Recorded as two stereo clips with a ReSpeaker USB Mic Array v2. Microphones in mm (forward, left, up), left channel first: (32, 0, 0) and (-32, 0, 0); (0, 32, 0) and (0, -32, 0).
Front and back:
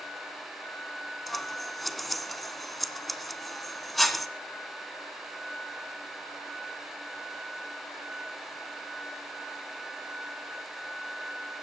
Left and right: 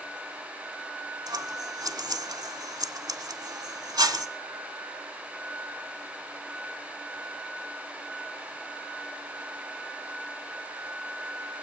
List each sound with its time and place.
1.3 s scissors: 90° right, 0.6 m